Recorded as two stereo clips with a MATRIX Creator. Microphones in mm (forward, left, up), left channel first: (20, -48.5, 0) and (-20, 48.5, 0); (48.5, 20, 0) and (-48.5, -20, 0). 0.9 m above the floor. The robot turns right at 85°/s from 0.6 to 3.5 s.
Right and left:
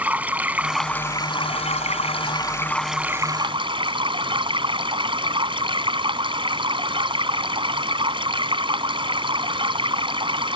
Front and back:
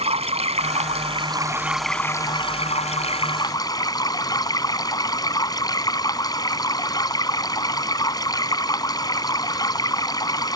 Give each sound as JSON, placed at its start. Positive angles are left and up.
{"t": 0.0, "sound": "running water", "azimuth_deg": -170}